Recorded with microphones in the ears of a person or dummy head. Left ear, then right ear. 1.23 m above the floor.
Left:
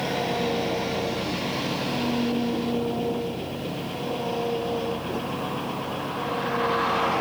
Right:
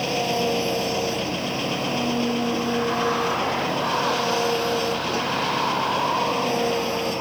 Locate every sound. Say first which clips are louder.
0.0 s an engine running: right 3 dB; 55° right (ahead or behind)